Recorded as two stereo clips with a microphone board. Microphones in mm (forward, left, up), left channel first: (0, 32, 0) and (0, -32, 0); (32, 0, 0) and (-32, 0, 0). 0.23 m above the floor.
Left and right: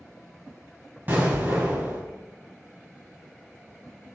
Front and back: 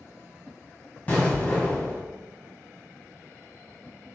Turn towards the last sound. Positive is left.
turn(degrees=-55)